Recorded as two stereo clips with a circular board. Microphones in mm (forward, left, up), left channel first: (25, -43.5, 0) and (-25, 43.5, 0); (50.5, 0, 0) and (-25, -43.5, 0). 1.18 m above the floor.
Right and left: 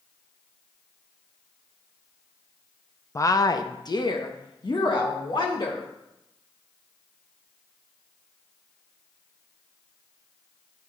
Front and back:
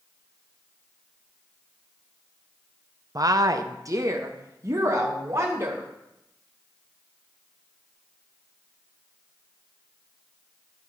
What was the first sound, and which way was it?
A woman speaking, 115° right.